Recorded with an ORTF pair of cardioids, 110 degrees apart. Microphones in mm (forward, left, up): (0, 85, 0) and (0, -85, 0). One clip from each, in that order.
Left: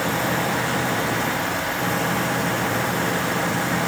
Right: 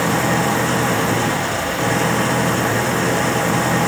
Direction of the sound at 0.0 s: 40° right.